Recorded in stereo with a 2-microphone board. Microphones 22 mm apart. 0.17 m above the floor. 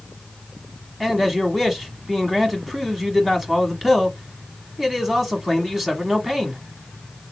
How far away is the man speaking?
About 1.0 m.